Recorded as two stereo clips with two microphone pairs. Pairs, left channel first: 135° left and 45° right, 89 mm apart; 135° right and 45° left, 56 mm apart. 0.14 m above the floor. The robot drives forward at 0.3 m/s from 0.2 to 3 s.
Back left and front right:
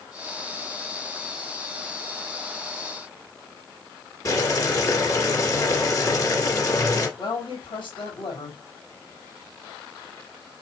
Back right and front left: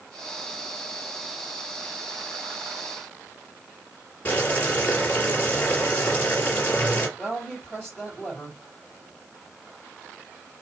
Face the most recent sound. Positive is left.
turn(degrees=145)